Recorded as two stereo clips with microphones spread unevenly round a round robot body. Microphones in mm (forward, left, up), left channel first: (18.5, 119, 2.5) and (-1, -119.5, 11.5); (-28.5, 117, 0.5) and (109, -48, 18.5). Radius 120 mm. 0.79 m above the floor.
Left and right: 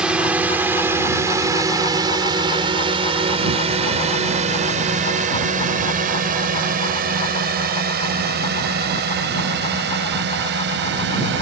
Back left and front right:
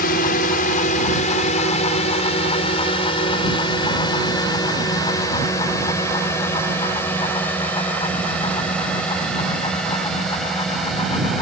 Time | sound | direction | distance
0.0 | a drone | straight behind | ?